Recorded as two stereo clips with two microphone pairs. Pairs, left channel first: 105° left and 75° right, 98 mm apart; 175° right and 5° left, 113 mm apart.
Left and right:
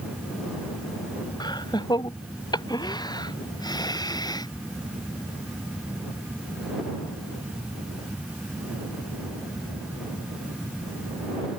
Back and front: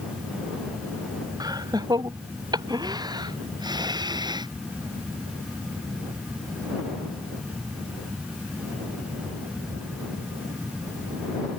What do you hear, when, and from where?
1.4 s laughter: 60° left